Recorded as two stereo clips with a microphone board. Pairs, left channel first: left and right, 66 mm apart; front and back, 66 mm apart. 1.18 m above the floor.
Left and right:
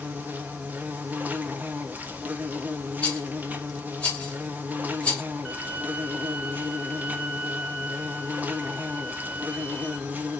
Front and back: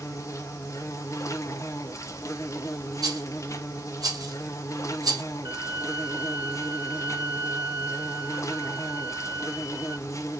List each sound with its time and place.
0.0 s an insect: 30° right, 0.8 m
3.0 s a rattle: 160° left, 1.7 m
5.5 s a violin: straight behind, 3 m